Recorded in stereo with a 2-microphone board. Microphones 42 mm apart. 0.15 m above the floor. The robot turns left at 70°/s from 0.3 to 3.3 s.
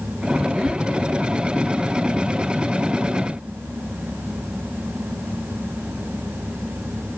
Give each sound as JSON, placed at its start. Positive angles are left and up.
{"t": 0.7, "sound": "ticking", "side_deg": 5, "distance_m": 1.5}